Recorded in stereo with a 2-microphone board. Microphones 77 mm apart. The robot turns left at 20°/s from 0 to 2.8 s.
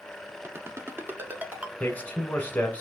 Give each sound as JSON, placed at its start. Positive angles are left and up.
{"t": 0.4, "sound": "a ringtone", "side_deg": -35, "distance_m": 0.7}
{"t": 1.8, "sound": "a man speaking", "side_deg": 20, "distance_m": 1.1}